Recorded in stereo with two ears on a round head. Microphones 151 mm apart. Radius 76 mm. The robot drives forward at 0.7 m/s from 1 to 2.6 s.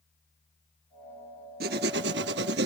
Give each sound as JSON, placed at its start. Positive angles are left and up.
{"t": 1.6, "sound": "writing", "side_deg": -65}